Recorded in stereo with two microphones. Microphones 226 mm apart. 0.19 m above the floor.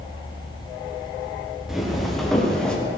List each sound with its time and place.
1.7 s footsteps: centre (ahead or behind), 4.5 m; by 2.8 s 5° left (ahead or behind), 4 m